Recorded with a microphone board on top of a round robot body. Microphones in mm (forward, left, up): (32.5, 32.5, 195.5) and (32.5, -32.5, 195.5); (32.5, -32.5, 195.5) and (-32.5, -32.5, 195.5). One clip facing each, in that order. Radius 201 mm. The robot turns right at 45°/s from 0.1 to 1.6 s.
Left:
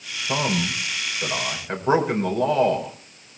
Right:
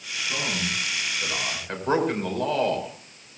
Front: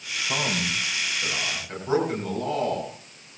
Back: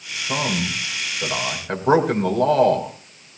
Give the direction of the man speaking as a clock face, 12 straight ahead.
8 o'clock.